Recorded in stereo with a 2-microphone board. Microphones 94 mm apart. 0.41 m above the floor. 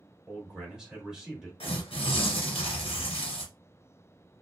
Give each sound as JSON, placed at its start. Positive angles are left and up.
{"t": 0.3, "sound": "a man speaking", "side_deg": -5, "distance_m": 1.3}
{"t": 1.6, "sound": "tearing paper", "side_deg": 85, "distance_m": 0.9}